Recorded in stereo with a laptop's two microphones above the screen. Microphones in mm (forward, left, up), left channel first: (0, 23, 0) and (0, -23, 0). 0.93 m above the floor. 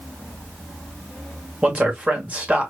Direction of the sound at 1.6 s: 25° right (ahead or behind).